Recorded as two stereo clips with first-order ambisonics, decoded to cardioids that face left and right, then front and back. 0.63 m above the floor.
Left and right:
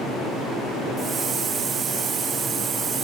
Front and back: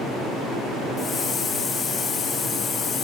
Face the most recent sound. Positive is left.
turn(degrees=-60)